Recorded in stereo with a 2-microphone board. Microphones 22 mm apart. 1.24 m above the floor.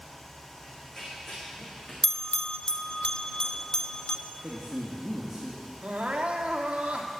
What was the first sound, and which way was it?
Running footsteps, 25° left (ahead or behind).